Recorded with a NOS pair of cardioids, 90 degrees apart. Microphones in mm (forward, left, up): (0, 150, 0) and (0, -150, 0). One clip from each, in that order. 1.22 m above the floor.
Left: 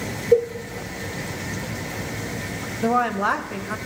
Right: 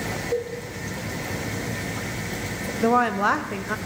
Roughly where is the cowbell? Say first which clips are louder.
Left 11 dB; ahead left.